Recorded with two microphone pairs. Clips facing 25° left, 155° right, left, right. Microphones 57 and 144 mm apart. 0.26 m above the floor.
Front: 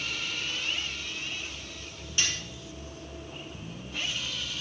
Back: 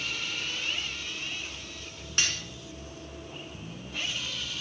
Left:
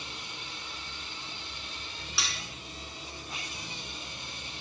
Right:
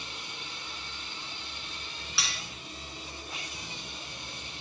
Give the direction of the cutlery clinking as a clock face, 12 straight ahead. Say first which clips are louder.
Back 1 dB, even; 6 o'clock.